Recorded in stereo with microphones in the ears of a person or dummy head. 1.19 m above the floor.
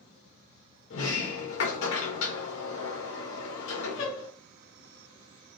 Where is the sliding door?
85° left, 2 m.